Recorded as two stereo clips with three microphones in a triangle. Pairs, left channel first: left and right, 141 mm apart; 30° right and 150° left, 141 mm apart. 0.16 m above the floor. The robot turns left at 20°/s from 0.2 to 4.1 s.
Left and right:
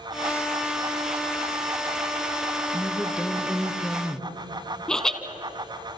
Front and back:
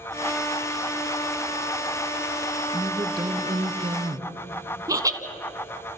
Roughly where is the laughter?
Behind.